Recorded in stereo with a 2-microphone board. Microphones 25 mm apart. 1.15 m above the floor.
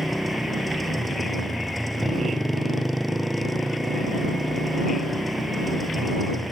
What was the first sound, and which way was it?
A motorcycle, centre (ahead or behind).